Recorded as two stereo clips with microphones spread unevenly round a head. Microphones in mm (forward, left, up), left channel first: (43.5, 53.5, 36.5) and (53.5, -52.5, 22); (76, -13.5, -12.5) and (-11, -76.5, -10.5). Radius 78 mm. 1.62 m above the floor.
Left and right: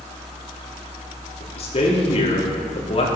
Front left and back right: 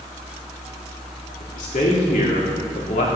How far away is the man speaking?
About 3.5 m.